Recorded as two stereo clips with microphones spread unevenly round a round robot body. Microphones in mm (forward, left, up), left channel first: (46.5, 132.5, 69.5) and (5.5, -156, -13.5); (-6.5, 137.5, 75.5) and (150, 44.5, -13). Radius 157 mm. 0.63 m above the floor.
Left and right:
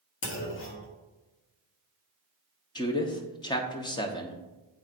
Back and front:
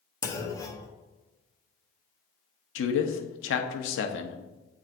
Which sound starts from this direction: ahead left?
A clunk, at 0.2 s.